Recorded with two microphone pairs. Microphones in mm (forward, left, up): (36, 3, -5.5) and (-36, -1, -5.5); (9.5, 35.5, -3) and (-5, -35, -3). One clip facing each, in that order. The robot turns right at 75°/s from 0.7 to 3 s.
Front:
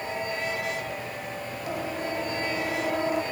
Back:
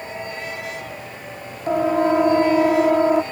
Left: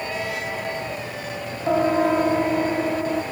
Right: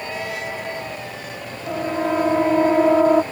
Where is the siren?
135° left; by 3.2 s 130° right.